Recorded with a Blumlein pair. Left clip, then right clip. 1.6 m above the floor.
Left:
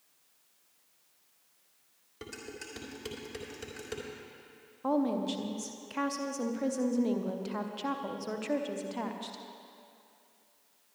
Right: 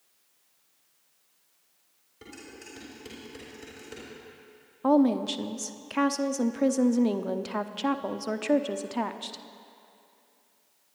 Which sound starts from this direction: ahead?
A woman speaking, at 4.8 s.